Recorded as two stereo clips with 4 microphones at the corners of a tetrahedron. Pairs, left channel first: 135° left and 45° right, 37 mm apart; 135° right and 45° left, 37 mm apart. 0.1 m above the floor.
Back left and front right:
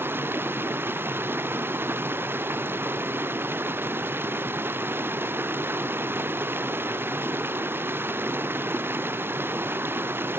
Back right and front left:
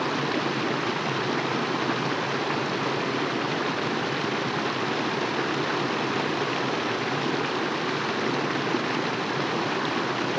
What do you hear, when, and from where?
0.0 s running water: 45° right